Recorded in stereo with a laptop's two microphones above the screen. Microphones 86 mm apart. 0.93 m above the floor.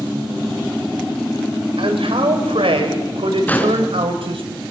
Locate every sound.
1.8 s a man speaking: 80° right, 5 m; by 4.5 s 75° right (ahead or behind), 6 m
3.5 s an explosion: 20° left (ahead or behind), 3 m